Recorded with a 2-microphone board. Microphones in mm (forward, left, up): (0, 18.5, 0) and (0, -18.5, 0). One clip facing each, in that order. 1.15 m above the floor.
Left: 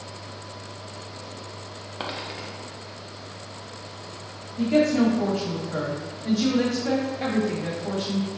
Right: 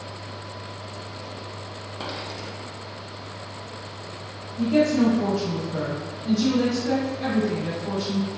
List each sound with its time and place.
2.0 s a dropped coin: 30° left (ahead or behind), 0.7 m
4.6 s a woman speaking: 80° left, 1.6 m